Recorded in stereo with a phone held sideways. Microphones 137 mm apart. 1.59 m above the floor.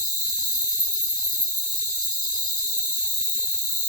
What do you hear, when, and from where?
0.0 s an insect: 65° right (ahead or behind), 1.2 m